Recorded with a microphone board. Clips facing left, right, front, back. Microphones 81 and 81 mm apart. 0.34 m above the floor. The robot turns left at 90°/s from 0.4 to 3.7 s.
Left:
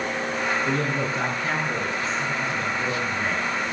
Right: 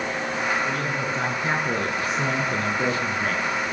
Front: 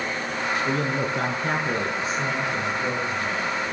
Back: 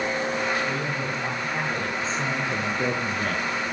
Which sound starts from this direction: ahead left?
A man speaking, at 0.7 s.